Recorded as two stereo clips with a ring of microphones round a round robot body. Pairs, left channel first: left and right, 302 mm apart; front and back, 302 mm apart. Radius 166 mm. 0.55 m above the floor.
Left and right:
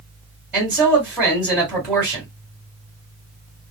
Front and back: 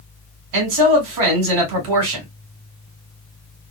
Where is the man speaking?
175° right, 2.5 m.